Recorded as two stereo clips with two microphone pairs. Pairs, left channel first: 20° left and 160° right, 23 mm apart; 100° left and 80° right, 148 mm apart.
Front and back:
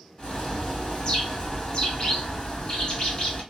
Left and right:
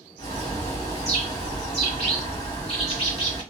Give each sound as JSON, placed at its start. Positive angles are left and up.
{"t": 0.2, "sound": "a bird", "azimuth_deg": 60, "distance_m": 1.5}